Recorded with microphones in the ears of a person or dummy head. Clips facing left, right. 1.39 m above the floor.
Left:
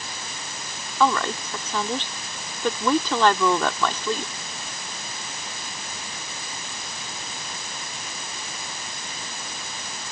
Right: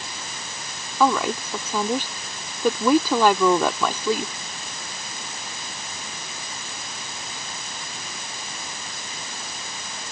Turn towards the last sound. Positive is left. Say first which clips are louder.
# right 2 dB
turn(degrees=-5)  # may be behind; listen again after turning